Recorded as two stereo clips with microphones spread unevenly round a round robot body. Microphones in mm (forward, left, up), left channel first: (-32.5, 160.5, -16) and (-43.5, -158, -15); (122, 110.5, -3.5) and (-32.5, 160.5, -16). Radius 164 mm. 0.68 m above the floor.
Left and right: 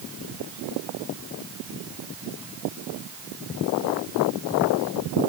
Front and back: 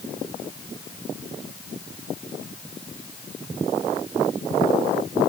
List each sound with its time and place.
Only background noise.